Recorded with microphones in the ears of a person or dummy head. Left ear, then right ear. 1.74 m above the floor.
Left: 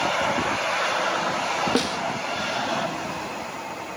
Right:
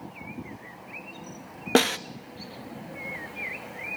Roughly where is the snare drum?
Right.